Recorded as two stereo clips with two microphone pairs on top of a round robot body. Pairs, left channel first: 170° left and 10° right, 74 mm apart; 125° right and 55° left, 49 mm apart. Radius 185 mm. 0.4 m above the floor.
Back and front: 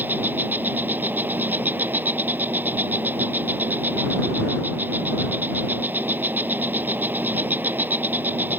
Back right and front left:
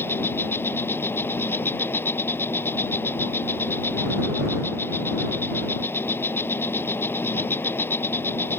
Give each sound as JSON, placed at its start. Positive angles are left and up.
{"t": 0.0, "sound": "an insect", "azimuth_deg": -80}